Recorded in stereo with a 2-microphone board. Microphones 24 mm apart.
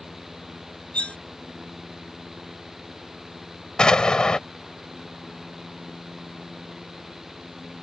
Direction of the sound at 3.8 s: 35° left (ahead or behind).